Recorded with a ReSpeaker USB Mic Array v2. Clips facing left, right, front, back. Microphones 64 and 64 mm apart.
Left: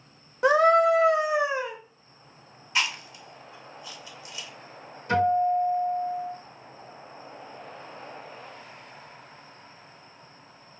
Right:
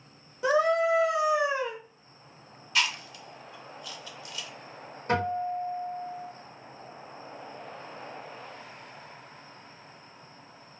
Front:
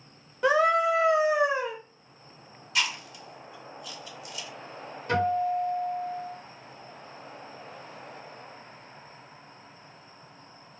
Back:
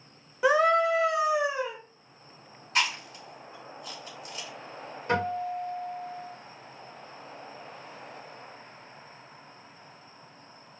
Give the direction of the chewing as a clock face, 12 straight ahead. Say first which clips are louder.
Left 1 dB, back 2 dB; 7 o'clock.